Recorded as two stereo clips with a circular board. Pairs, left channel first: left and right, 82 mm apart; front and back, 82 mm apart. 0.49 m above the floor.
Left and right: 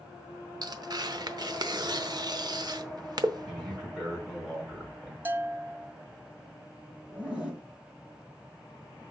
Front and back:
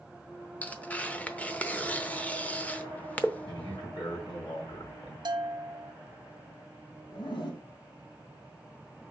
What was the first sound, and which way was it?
Tearing paper, 70° right.